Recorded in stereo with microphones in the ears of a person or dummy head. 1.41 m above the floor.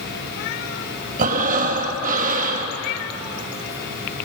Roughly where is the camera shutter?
I don't hear a camera shutter.